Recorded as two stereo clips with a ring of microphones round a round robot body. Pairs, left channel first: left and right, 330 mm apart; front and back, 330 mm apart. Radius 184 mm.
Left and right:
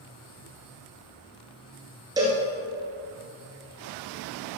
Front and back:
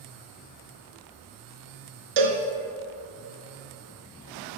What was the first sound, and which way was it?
A cowbell, 170° right.